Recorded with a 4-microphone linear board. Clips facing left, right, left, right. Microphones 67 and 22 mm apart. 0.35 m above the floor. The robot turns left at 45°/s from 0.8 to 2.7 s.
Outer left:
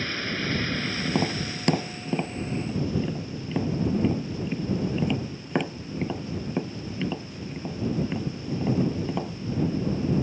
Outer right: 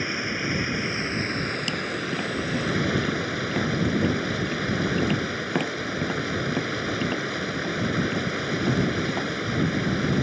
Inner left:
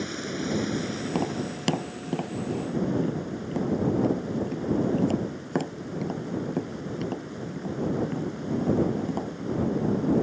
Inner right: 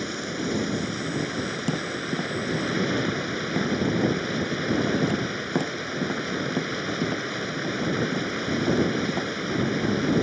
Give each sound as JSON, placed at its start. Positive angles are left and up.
{"t": 0.0, "sound": "running water", "azimuth_deg": -15}
{"t": 1.1, "sound": "tapping", "side_deg": 75}